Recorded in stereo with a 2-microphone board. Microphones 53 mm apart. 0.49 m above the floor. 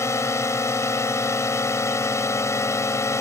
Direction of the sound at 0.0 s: 60° left (ahead or behind).